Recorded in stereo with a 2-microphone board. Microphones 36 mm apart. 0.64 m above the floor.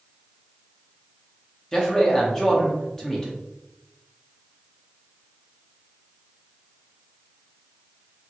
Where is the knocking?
No knocking in this recording.